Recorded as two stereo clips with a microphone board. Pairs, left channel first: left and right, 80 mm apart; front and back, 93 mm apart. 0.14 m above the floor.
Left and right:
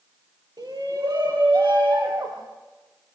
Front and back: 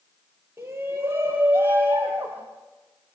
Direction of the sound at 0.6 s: 120° right.